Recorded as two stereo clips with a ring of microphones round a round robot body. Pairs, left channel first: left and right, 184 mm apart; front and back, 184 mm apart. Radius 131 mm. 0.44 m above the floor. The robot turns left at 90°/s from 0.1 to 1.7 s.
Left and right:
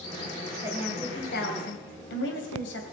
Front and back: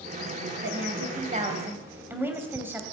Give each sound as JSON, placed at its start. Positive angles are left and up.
{"t": 0.6, "sound": "a woman speaking", "azimuth_deg": -160, "distance_m": 2.5}